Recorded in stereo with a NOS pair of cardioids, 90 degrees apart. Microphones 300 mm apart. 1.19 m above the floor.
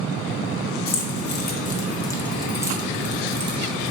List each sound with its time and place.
0.9 s keys jangling: 50° left, 1.1 m; by 3.9 s 50° right, 1.1 m